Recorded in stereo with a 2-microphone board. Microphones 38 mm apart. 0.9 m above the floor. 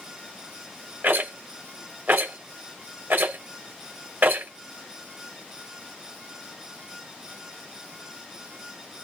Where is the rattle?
60° right (ahead or behind), 2.5 m.